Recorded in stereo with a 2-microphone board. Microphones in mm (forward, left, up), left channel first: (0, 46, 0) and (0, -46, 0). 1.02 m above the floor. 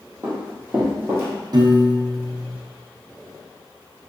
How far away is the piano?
About 0.6 m.